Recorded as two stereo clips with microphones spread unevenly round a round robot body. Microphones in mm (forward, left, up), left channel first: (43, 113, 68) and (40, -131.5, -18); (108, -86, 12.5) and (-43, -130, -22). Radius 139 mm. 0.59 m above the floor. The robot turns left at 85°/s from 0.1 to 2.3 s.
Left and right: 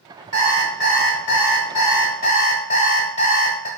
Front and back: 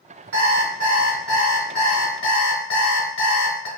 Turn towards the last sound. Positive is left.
turn(degrees=25)